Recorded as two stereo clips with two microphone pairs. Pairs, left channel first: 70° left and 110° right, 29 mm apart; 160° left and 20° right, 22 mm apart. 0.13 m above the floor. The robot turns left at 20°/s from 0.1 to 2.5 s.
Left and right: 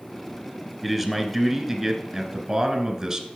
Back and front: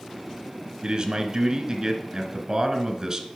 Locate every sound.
0.8 s a man speaking: 15° right, 1.3 m; by 3.3 s 45° right, 1.3 m